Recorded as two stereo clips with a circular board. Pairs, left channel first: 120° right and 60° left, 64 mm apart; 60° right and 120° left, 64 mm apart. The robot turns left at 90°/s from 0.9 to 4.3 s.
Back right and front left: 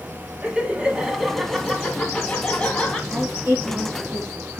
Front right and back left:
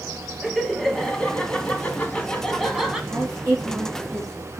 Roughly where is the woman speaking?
Behind left.